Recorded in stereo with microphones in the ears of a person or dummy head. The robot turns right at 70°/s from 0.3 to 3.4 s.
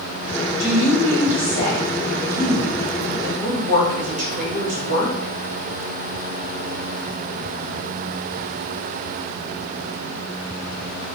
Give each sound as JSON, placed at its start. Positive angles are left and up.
{"t": 0.6, "sound": "a woman speaking", "azimuth_deg": 85, "distance_m": 2.0}